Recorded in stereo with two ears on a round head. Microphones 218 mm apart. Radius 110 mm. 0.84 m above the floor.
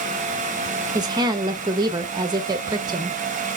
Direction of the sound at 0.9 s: 15° right (ahead or behind).